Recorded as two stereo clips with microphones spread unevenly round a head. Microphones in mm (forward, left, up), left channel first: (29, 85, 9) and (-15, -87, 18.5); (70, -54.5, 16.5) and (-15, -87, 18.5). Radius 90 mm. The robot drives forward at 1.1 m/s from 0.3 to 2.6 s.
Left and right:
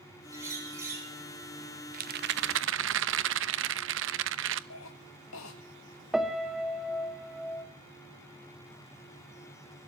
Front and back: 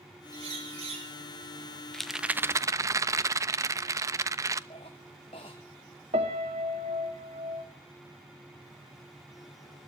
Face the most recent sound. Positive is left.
turn(degrees=170)